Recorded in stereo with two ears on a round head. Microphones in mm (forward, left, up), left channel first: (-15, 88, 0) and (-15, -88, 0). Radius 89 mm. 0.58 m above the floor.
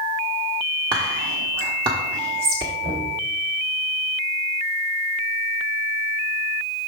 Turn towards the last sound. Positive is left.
turn(degrees=-30)  # may be behind; listen again after turning